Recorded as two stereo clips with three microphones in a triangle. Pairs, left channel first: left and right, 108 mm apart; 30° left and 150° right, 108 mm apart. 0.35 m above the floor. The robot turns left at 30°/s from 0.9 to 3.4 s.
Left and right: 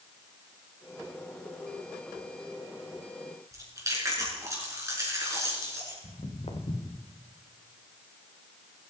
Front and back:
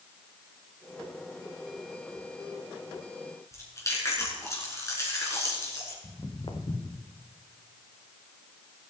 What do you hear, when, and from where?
3.5 s chewing: 30° right, 3.5 m
6.0 s footsteps: 80° left, 2.5 m; by 7.1 s 45° left, 1.6 m